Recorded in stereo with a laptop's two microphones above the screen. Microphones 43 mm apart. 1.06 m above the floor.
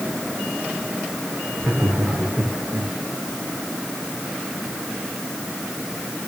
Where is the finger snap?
No finger snap in this recording.